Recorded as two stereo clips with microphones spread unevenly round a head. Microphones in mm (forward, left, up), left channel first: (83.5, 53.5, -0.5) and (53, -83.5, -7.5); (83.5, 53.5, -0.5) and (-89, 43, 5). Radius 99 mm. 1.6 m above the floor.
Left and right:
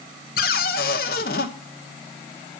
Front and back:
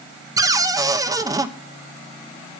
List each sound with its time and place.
0.4 s a cupboard door: 110° left, 0.8 m